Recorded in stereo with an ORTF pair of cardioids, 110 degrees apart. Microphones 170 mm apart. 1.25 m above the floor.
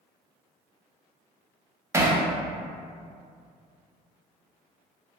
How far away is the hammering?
About 0.6 m.